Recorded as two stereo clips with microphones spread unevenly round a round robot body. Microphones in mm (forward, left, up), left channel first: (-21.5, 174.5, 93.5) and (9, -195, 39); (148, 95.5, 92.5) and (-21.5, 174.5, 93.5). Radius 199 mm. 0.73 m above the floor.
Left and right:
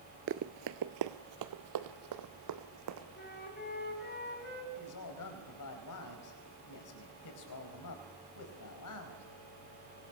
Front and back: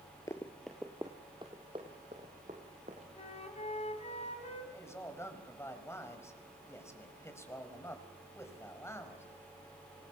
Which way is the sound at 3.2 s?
30° left.